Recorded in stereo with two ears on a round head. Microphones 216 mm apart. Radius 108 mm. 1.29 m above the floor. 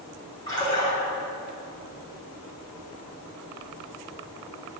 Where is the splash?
15° left (ahead or behind), 3 m.